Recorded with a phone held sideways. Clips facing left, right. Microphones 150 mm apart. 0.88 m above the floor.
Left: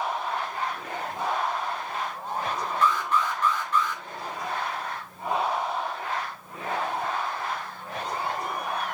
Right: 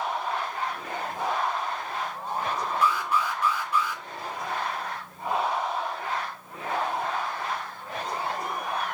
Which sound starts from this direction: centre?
An alarm, at 2.8 s.